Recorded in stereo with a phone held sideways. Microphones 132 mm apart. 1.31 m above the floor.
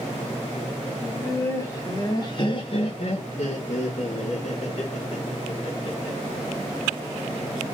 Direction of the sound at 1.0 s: 10° left (ahead or behind).